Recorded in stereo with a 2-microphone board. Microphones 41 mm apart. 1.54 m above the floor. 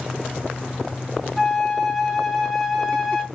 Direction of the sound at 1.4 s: Centre (ahead or behind).